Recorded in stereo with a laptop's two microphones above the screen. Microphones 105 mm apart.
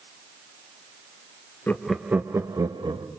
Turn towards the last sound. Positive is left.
turn(degrees=-45)  # may be behind; listen again after turning